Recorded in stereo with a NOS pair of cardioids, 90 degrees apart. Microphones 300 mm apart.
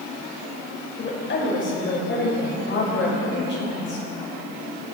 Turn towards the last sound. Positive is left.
turn(degrees=40)